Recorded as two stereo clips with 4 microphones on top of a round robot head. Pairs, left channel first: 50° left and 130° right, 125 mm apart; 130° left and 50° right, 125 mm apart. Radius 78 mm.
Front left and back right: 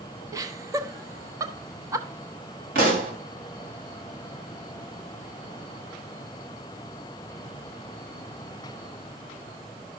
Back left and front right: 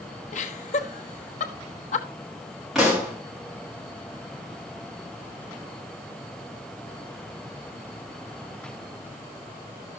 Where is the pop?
140° right, 4 m.